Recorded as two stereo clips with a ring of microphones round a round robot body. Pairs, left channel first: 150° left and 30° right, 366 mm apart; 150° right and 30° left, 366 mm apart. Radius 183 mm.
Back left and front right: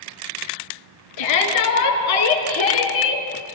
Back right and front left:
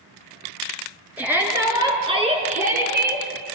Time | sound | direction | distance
1.2 | a shout | 115° left | 4.5 m